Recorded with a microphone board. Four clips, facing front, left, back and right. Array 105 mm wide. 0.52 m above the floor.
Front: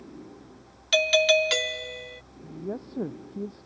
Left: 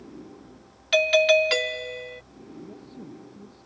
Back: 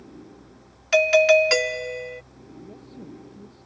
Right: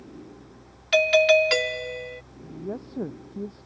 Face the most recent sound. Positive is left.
turn(degrees=-45)